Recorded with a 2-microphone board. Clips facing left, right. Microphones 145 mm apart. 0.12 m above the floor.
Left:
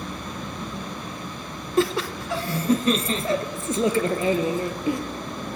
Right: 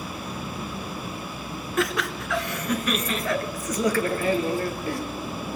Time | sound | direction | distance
1.8 | laughter | 30° left (ahead or behind) | 1.2 m